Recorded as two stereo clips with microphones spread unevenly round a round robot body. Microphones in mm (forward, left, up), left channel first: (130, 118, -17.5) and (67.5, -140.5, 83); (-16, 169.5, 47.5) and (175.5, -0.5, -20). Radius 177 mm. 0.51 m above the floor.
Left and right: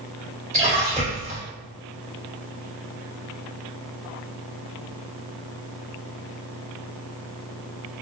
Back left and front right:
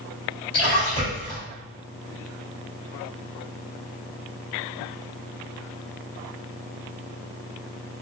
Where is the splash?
175° left, 1.3 m.